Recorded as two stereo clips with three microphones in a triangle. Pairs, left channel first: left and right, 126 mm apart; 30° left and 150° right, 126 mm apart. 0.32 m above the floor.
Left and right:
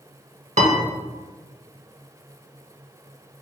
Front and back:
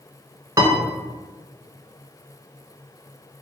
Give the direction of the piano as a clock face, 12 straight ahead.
3 o'clock.